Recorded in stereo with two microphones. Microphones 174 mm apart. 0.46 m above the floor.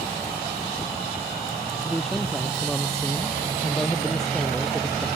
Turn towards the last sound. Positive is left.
turn(degrees=0)  # may be behind; listen again after turning